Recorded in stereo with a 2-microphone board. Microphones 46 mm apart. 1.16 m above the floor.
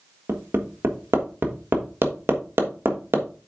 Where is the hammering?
60° right (ahead or behind), 1.5 m.